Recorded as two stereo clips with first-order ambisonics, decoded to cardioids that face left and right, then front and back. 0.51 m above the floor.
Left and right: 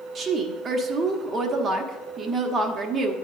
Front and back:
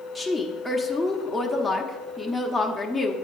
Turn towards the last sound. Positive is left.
turn(degrees=-90)